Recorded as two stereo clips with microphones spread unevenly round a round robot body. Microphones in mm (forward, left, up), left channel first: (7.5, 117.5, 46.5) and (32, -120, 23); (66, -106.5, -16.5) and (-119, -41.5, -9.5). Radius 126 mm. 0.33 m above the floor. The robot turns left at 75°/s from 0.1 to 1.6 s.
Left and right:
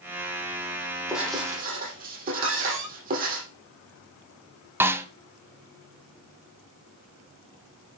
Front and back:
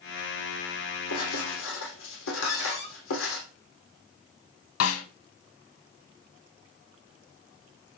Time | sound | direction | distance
1.1 | writing | 10° left | 4.5 m
2.4 | a cupboard door | 45° right | 7 m
4.8 | a snare drum | 5° right | 0.7 m